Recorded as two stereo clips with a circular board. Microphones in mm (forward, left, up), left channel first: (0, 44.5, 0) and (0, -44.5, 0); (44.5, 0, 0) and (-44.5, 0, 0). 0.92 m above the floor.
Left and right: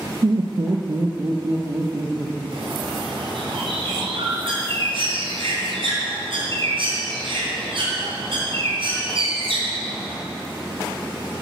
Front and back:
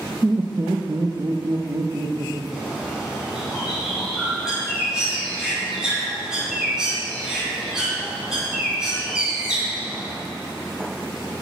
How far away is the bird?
About 3 m.